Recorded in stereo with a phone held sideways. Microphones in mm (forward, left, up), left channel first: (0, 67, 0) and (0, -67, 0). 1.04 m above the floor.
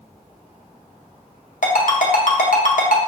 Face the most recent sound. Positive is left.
turn(degrees=80)